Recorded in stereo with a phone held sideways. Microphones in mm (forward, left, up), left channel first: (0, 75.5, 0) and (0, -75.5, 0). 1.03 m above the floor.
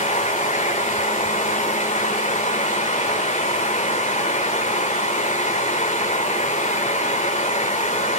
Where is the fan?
50° left (ahead or behind), 1.4 m.